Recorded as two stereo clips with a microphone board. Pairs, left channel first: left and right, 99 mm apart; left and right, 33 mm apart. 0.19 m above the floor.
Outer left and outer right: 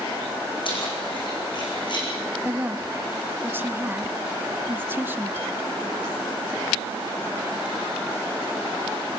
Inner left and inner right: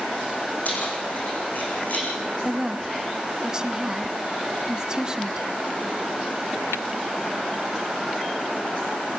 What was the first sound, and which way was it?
Keys jangling, 55° left (ahead or behind).